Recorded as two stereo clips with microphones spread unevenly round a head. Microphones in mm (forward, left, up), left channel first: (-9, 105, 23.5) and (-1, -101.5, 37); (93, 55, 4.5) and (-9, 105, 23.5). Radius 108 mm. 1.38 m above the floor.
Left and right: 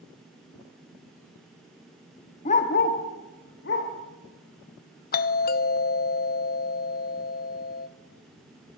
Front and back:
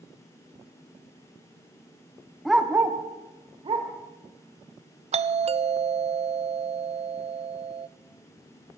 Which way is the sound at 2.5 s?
90° left.